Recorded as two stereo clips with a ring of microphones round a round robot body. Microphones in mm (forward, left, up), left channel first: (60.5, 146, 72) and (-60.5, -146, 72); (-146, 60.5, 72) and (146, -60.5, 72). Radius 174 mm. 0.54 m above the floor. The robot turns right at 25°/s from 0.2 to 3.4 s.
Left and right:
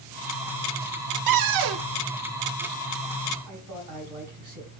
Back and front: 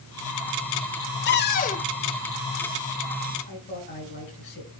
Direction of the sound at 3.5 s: 145° right.